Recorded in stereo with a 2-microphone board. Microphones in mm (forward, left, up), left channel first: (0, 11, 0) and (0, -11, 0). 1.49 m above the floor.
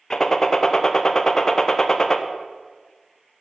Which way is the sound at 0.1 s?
25° left (ahead or behind).